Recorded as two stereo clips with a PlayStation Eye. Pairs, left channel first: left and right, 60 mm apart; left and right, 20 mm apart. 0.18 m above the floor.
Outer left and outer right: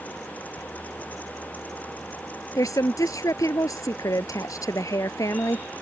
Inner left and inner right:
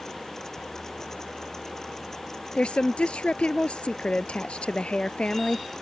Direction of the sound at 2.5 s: 70° left (ahead or behind).